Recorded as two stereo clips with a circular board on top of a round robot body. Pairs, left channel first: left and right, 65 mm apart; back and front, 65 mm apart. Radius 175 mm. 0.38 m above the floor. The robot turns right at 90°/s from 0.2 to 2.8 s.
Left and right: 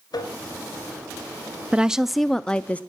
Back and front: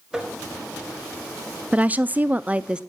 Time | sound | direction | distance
0.1 | tapping | 80° left | 2.5 m
1.7 | a woman speaking | 40° right | 0.8 m